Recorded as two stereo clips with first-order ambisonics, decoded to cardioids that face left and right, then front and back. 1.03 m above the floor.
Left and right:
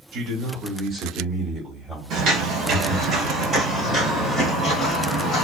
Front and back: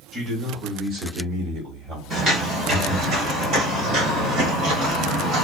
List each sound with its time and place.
0.1 s a man speaking: 115° right, 1.1 m; by 3.1 s 160° left, 1.9 m
2.1 s footsteps: 120° right, 1.5 m; by 5.4 s 160° left, 2.0 m